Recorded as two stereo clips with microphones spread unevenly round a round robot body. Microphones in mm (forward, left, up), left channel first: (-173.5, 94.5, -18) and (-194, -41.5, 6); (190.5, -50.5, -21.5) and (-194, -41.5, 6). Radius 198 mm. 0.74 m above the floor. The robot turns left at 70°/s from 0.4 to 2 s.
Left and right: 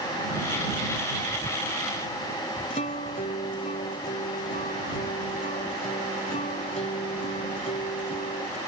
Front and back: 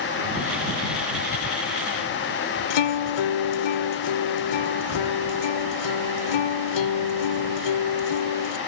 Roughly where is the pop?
No pop in this recording.